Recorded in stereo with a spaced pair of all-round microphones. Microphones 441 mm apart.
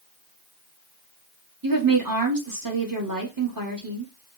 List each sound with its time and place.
1.6 s a woman speaking: 45° right (ahead or behind), 1.6 m